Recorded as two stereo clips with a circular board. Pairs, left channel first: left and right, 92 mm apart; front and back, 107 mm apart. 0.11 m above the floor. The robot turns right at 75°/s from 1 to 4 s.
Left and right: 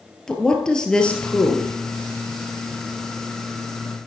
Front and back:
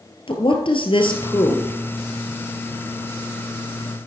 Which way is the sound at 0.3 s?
10° left.